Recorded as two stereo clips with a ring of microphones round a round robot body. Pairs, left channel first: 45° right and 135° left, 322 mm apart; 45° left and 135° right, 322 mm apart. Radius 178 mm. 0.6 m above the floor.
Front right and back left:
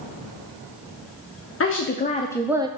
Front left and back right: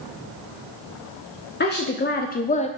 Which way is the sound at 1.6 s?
10° right.